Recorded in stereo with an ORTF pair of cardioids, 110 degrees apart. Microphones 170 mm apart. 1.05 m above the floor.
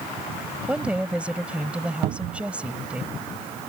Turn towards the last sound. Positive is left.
turn(degrees=-65)